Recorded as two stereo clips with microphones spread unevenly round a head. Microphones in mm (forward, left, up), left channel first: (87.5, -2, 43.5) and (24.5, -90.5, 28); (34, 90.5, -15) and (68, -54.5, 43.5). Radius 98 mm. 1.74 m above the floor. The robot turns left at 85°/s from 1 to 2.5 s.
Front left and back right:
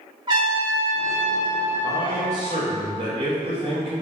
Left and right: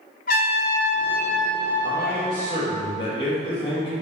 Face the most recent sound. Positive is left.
turn(degrees=175)